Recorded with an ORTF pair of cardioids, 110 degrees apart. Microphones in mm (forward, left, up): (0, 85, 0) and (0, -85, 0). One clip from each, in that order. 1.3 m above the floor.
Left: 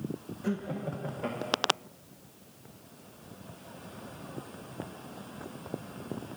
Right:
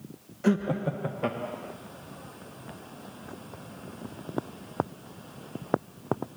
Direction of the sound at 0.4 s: 40° right.